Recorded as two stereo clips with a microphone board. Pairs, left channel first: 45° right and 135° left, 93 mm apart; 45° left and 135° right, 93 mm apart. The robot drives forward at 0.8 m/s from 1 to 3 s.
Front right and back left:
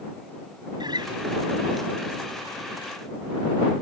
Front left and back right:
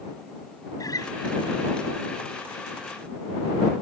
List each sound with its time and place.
0.8 s a guitar: 95° left